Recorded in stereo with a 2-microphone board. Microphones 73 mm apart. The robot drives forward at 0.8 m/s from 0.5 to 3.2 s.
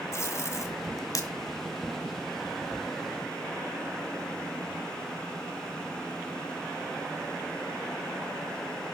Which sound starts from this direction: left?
Tape being pulled, at 0.1 s.